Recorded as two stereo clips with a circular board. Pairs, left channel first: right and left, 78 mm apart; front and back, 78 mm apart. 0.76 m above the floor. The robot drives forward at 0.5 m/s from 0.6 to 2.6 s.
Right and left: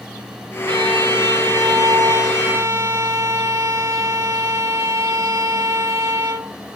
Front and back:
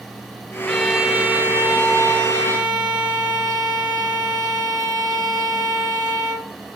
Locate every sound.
0.7 s a violin: 80° left, 0.6 m; by 6.5 s 145° left, 1.1 m